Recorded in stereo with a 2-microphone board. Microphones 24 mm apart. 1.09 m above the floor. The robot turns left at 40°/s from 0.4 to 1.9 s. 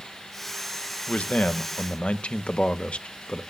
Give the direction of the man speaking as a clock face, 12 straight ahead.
9 o'clock.